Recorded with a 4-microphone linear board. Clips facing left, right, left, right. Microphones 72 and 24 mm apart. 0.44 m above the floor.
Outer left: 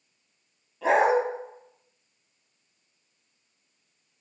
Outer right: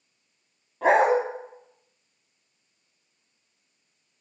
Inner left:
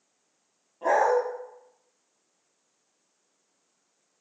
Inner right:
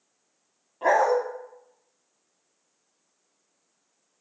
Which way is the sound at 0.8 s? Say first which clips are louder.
Outer right 2 dB, inner right 1 dB; 50° right (ahead or behind).